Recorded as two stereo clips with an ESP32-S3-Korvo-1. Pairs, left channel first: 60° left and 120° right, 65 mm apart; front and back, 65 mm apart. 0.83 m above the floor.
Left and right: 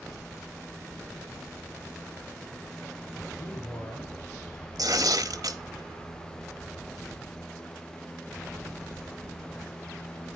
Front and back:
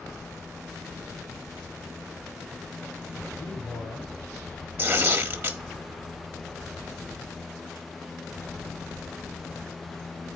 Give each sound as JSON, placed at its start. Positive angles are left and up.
{"t": 3.4, "sound": "a man speaking", "azimuth_deg": 10, "distance_m": 7.0}
{"t": 4.8, "sound": "tearing paper", "azimuth_deg": -130, "distance_m": 1.1}